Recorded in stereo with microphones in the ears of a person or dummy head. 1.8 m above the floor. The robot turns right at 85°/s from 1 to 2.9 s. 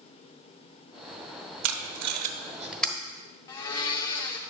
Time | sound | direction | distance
1.6 | tape being pulled | 85° right | 0.8 m
3.5 | a blender | 20° left (ahead or behind) | 0.8 m